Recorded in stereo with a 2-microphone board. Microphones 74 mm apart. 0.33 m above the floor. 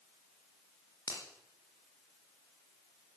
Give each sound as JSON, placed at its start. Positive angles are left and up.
{"t": 1.1, "sound": "a finger snap", "side_deg": 70, "distance_m": 4.0}